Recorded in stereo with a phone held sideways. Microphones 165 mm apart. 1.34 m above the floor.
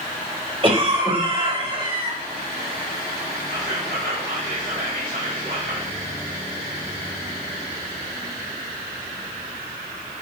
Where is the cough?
35° right (ahead or behind), 3 m.